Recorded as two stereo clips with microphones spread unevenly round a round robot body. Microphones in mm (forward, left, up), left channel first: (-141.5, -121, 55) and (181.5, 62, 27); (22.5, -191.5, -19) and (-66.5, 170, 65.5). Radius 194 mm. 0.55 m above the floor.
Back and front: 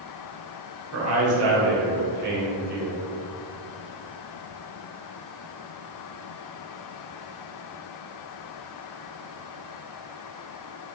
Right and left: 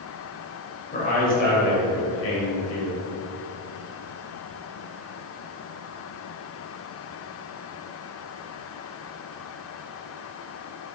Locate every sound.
0.9 s a man speaking: 10° right, 2 m; by 3.1 s 35° right, 2.5 m